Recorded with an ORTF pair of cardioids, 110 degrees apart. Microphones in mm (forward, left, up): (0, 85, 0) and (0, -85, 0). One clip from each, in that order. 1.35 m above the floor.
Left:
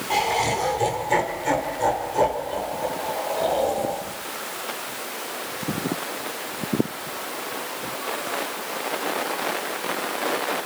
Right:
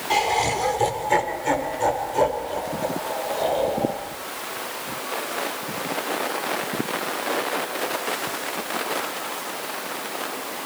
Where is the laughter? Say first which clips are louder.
Right 1 dB; 25° right, 4 m; by 4.0 s straight ahead, 5.5 m.